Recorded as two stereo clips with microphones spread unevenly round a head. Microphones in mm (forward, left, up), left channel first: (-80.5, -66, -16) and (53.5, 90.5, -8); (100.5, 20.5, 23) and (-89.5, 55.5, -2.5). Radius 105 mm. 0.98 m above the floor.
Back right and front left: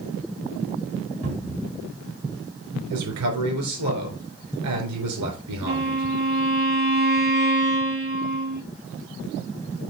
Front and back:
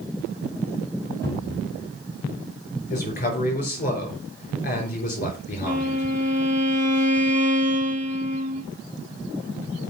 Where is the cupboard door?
65° left, 4.5 m.